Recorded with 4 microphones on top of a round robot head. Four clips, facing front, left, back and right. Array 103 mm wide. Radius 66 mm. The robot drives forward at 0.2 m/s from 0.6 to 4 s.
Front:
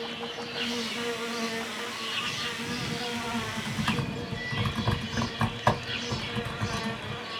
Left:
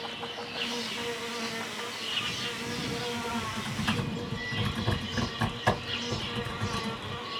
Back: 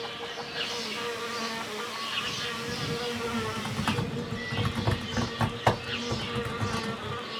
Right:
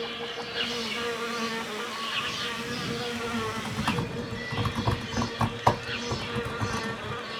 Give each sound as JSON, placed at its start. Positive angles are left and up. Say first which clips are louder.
{"t": 0.0, "sound": "an insect", "louder": "right 3 dB, front 1 dB", "azimuth_deg": -105, "distance_m": 1.6}
{"t": 3.1, "sound": "typing on a keyboard", "louder": "right 2 dB, back 1 dB", "azimuth_deg": -140, "distance_m": 1.7}